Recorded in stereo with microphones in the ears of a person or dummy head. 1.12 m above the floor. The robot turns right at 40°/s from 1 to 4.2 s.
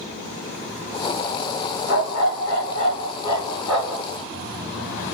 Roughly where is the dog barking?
Left.